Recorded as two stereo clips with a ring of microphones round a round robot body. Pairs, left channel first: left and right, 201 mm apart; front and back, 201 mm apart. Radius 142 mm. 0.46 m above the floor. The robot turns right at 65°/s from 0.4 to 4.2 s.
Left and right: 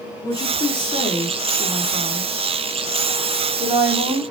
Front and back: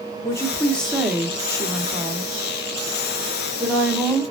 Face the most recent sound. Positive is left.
turn(degrees=-60)